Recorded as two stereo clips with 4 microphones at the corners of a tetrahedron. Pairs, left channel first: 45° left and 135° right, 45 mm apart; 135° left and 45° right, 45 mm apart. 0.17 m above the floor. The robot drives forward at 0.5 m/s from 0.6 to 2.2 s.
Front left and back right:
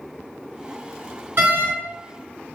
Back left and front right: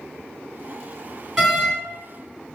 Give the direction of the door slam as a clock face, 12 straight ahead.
4 o'clock.